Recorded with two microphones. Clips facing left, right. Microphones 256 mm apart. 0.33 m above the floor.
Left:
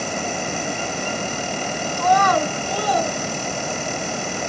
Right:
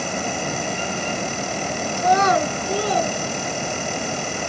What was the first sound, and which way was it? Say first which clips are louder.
A child speaking: even; 20° right (ahead or behind).